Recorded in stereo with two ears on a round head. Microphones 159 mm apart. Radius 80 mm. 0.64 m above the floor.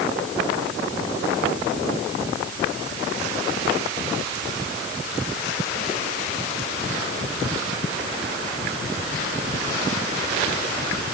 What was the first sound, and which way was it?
Only background noise.